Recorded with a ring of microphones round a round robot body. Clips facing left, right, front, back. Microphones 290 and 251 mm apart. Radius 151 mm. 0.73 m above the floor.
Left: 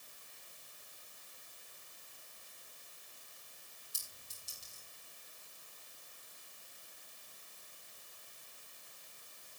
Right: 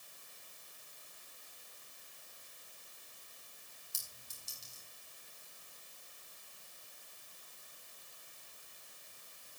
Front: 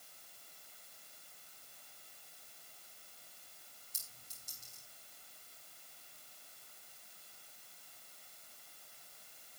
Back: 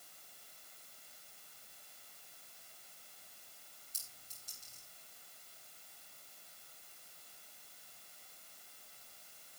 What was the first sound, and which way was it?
A clink, 50° right.